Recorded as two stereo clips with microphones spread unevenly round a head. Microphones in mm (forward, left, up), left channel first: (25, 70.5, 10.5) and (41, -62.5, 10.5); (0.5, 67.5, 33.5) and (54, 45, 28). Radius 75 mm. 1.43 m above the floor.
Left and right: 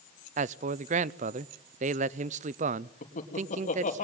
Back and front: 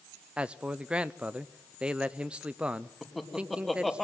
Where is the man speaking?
85° right, 0.5 m.